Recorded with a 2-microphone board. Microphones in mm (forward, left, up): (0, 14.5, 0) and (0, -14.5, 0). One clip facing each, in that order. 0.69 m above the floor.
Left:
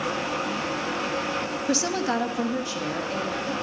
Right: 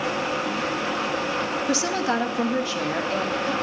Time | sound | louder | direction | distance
1.7 | a woman speaking | even | 5° right (ahead or behind) | 0.9 m